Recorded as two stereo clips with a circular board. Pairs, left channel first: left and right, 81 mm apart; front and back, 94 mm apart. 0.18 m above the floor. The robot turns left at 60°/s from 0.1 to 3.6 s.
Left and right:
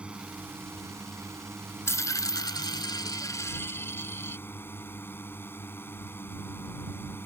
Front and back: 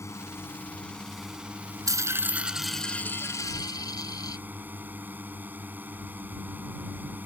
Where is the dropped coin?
140° left; by 4.4 s 35° left.